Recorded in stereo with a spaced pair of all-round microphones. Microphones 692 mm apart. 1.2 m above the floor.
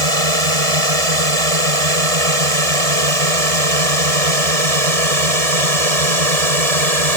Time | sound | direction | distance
0.0 | a drone | 50° right (ahead or behind) | ?